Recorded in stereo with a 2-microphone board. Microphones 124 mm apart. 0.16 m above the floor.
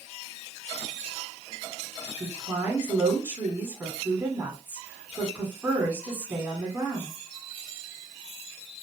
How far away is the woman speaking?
About 1.2 m.